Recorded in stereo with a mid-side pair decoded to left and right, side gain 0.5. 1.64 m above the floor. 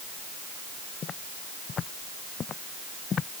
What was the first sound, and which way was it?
Footsteps, 45° left.